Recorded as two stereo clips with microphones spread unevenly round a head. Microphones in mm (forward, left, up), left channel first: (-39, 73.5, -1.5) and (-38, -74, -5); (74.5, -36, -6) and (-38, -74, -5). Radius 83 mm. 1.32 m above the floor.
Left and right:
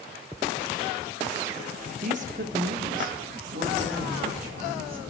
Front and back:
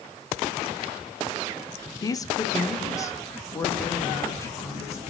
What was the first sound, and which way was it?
A woman speaking, 40° right.